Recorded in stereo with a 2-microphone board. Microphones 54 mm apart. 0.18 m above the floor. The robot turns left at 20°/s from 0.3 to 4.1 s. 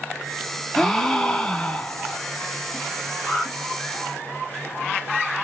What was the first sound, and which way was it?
A gasp, 5° left (ahead or behind).